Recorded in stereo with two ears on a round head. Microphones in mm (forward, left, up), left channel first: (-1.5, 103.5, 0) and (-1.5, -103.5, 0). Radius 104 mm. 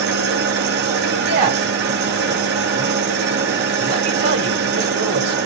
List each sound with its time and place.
0.0 s an engine running: 45° right (ahead or behind), 1.0 m
1.2 s a man speaking: 45° right (ahead or behind), 1.6 m